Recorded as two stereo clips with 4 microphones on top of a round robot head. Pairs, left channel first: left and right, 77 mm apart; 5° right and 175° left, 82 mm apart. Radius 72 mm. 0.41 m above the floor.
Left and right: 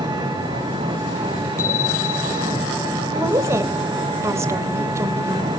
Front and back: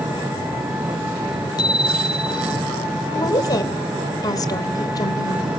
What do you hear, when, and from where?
0.0 s an engine running: 120° right, 9 m
1.6 s a bicycle bell: 30° left, 5.5 m
3.1 s a woman speaking: 40° right, 2.5 m